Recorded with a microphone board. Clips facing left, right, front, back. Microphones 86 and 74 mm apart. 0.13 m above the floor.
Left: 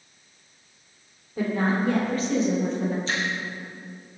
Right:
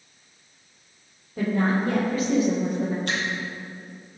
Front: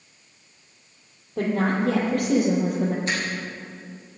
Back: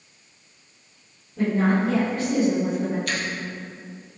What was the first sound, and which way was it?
A woman speaking, 5° left.